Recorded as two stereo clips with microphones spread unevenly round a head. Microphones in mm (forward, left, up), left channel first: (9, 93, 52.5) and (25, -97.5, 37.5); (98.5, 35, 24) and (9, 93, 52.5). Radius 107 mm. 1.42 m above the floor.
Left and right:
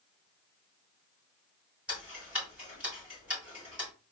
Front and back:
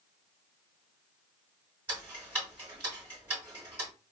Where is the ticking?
170° right, 1.3 m.